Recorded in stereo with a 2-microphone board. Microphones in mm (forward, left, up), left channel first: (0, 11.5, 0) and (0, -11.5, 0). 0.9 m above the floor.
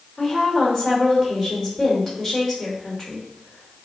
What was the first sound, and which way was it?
A woman speaking, 15° left (ahead or behind).